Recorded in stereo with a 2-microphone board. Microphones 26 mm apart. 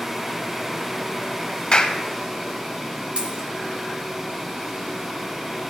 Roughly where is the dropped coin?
Right.